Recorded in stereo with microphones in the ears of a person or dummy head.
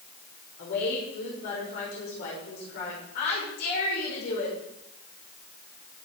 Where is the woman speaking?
55° left (ahead or behind), 6 m.